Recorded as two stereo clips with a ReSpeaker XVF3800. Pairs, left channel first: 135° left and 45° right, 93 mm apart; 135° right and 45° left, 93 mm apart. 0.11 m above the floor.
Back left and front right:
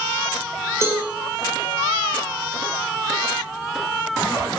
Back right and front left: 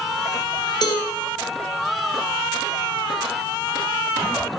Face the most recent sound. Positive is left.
turn(degrees=-105)